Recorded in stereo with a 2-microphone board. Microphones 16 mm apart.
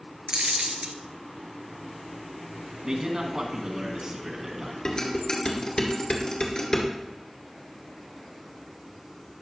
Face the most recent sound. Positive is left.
turn(degrees=50)  # may be behind; listen again after turning